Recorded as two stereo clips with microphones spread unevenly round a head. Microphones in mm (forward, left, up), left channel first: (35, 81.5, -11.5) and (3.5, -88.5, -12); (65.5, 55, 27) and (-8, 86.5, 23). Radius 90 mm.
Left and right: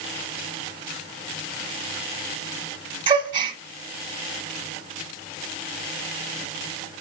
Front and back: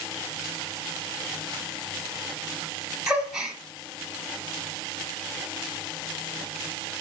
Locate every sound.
3.1 s a gasp: 115° right, 1.2 m